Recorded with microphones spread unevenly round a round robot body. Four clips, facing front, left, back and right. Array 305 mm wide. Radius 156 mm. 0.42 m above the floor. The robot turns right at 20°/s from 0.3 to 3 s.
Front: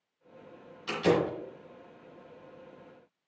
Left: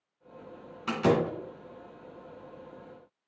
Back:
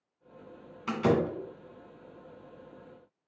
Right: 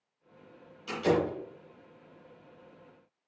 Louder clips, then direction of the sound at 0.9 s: Left 2 dB, even; 115° left.